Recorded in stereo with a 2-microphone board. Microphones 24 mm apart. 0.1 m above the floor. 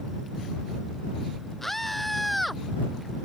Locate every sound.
1.6 s a scream: 10° left (ahead or behind); by 2.6 s centre (ahead or behind)